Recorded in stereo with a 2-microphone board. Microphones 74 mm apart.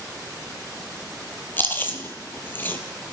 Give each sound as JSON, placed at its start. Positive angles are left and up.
{"t": 1.6, "sound": "chewing", "side_deg": 30, "distance_m": 0.5}